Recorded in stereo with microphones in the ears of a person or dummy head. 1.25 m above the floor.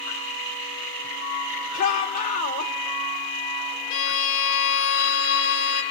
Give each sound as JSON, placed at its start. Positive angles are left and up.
{"t": 1.7, "sound": "a shout", "side_deg": 45, "distance_m": 3.5}
{"t": 3.9, "sound": "a violin", "side_deg": 70, "distance_m": 1.7}